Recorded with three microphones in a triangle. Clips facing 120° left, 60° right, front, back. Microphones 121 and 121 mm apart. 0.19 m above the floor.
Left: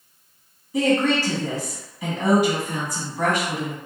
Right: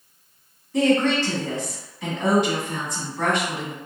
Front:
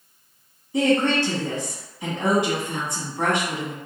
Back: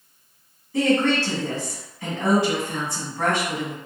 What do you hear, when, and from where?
0.7 s a woman speaking: 50° left, 1.2 m